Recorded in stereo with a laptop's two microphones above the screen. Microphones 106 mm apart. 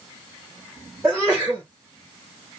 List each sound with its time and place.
1.0 s a sneeze: 15° right (ahead or behind), 1.0 m